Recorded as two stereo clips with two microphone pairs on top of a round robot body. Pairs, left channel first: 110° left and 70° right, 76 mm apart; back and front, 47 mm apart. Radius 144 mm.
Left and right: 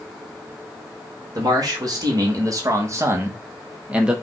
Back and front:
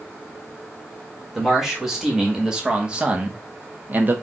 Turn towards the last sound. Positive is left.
turn(degrees=-5)